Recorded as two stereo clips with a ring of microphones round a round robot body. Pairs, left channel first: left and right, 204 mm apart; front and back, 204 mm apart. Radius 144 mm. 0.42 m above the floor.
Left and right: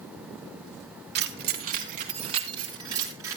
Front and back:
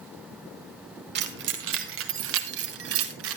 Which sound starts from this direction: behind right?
Keys jangling, at 1.1 s.